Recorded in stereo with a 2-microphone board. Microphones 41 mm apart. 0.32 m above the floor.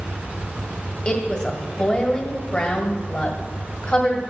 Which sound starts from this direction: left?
A woman speaking, at 1.1 s.